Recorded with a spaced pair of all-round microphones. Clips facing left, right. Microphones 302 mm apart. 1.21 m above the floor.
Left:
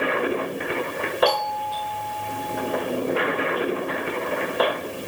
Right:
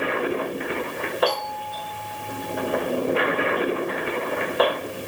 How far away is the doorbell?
About 6.5 m.